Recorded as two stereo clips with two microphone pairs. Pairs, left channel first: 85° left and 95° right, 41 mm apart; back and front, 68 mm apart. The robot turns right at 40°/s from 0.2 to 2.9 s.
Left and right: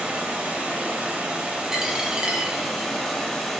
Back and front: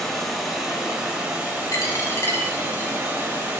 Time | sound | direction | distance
0.0 | running water | 105° right | 1.0 m
1.7 | a dropped coin | 170° right | 0.8 m